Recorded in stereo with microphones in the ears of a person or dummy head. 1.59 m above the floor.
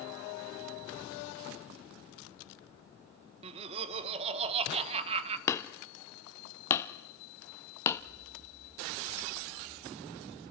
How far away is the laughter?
About 1.3 m.